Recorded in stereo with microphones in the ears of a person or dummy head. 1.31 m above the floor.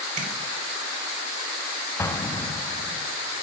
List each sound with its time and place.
0.2 s tapping: 40° right (ahead or behind), 3.5 m
2.0 s an explosion: 10° left (ahead or behind), 0.9 m